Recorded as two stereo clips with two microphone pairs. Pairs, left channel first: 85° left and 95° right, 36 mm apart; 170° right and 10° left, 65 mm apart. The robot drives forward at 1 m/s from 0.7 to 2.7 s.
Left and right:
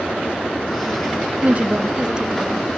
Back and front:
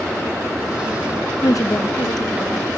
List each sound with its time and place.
1.4 s a woman speaking: 135° right, 0.6 m; by 2.8 s 165° right, 1.8 m